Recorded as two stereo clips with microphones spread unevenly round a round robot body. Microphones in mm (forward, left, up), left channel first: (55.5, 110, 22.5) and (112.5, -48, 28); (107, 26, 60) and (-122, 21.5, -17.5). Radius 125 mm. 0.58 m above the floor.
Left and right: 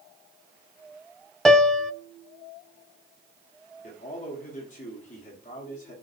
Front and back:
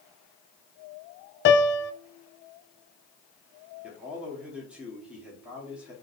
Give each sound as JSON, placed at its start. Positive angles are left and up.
{"t": 1.4, "sound": "a piano", "azimuth_deg": 20, "distance_m": 0.6}
{"t": 3.8, "sound": "a man speaking", "azimuth_deg": 115, "distance_m": 1.8}